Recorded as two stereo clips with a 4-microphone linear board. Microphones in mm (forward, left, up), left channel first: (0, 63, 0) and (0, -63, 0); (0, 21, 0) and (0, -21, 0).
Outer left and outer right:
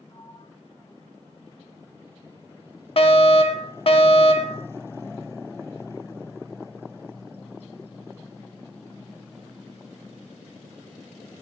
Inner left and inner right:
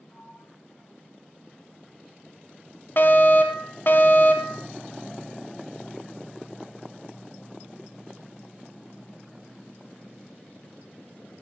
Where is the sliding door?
35° left (ahead or behind), 2.5 m.